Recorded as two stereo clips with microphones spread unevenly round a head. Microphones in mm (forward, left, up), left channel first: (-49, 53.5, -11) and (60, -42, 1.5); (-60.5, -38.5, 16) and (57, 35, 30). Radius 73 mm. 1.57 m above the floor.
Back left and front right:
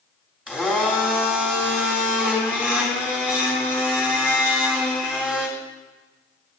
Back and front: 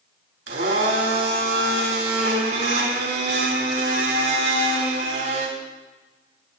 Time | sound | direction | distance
0.5 | a blender | 40° left | 3 m